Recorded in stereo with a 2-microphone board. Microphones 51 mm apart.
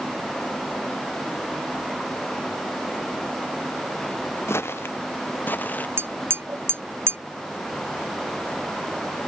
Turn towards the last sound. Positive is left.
turn(degrees=-50)  # may be behind; listen again after turning